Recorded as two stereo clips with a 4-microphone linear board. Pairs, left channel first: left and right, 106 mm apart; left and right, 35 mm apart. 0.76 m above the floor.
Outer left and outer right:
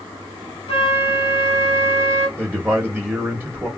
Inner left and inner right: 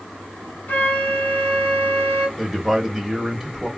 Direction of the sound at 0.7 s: 55° left (ahead or behind).